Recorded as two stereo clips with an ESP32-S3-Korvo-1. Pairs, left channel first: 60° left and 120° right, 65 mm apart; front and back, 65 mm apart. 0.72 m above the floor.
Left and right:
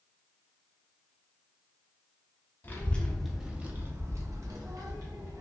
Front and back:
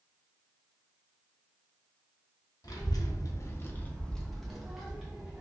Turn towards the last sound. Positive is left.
turn(degrees=-105)